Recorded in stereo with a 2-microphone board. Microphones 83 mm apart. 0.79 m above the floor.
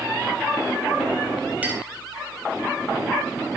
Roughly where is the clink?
Centre.